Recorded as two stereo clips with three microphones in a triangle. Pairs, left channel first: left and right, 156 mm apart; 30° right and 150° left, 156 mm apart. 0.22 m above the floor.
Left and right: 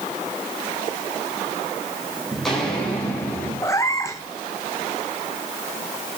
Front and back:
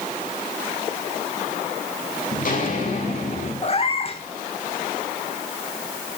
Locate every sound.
2.3 s footsteps: straight ahead, 5 m; by 3.5 s 10° left, 6.5 m
3.6 s a cat meowing: 20° left, 1.2 m